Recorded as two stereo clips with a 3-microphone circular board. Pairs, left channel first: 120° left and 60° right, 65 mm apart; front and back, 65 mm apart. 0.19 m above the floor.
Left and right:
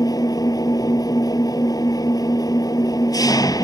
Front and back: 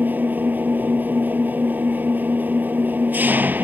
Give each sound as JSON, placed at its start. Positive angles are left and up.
{"t": 0.0, "sound": "an engine running", "azimuth_deg": 120}